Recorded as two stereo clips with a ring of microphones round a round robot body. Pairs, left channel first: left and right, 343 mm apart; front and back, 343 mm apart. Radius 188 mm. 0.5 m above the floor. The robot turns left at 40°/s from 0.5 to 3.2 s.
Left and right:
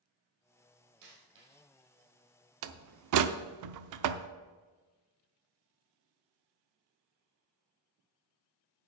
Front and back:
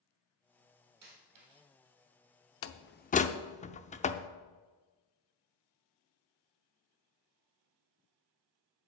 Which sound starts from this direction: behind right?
A dropped coin, at 1.0 s.